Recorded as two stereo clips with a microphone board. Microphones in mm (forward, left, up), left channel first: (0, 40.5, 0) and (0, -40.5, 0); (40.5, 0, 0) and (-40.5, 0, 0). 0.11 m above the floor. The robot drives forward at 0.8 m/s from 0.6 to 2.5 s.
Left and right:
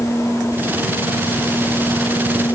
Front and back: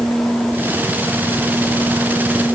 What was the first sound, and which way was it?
Only background noise.